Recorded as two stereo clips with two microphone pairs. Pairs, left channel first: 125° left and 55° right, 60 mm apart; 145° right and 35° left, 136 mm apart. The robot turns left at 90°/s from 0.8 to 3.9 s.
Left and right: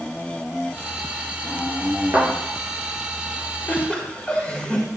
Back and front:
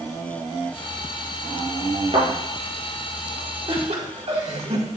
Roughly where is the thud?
Ahead.